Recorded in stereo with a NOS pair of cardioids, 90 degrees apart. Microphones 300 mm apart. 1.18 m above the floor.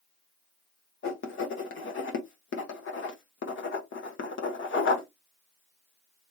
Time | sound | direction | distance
1.0 | writing | 40° left | 1.2 m